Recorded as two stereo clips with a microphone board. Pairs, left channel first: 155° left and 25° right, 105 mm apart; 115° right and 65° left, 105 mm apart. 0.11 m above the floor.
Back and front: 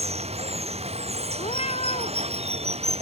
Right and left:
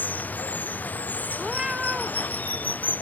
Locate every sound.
0.0 s running water: 40° right
1.4 s a cat meowing: 150° left